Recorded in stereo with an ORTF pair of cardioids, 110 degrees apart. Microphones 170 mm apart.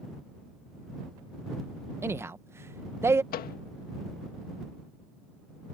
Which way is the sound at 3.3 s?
60° left.